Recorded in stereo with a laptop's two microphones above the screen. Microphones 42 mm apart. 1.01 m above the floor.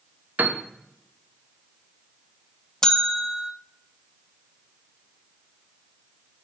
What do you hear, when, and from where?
0.4 s a piano: 40° right (ahead or behind), 0.8 m
2.8 s a bell: 10° left (ahead or behind), 0.5 m